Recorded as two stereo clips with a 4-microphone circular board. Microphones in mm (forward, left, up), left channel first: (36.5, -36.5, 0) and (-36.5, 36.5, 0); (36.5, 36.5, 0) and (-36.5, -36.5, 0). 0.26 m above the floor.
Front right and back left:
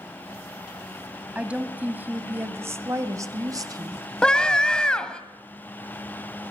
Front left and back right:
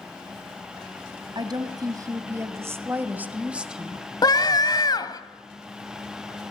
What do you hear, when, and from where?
1.4 s a woman speaking: 150° right, 2 m; by 4.0 s 140° left, 1.8 m
4.2 s a scream: 35° left, 1.5 m